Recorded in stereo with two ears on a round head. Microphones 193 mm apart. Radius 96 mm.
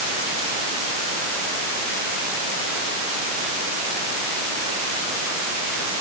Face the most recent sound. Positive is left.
No sound to turn to.